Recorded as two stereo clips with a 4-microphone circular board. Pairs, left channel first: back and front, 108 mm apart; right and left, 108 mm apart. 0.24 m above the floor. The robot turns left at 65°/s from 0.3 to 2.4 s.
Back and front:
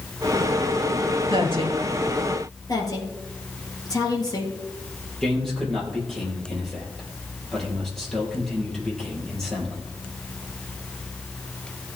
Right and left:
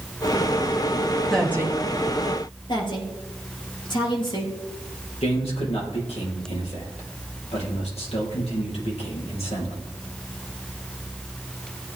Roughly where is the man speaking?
Right.